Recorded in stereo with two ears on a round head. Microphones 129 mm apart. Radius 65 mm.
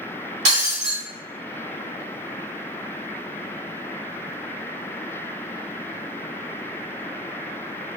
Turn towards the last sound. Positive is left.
turn(degrees=-50)  # may be behind; listen again after turning